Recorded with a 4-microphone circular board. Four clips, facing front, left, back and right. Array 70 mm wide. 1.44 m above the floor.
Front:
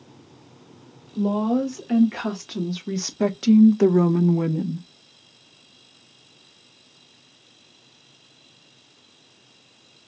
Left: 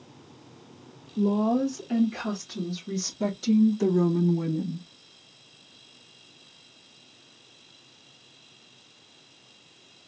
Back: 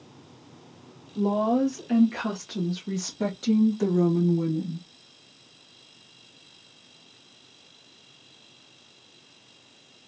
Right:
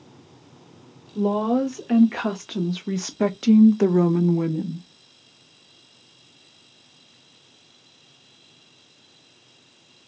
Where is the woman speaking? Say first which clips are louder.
Right 3 dB, front 1 dB; 85° right, 2 m; by 4.9 s 10° right, 0.7 m.